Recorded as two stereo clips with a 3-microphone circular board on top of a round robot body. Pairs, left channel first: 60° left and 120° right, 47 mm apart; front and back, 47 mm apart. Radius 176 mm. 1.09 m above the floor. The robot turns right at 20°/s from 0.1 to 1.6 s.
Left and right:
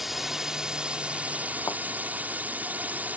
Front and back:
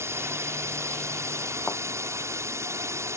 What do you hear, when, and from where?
0.0 s a drone: 155° left; by 3.2 s 175° right
1.7 s a thud: 55° left